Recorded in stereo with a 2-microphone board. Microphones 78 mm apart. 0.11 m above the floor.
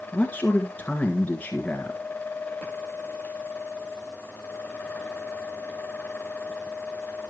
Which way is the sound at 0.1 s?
20° left (ahead or behind).